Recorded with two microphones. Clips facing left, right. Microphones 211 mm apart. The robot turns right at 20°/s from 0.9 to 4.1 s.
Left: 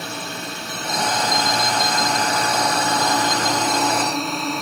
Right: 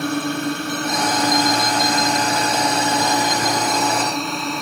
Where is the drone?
60° right; by 4.6 s straight ahead.